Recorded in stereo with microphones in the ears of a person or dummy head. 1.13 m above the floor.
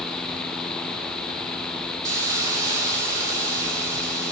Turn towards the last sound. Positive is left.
turn(degrees=-15)  # may be behind; listen again after turning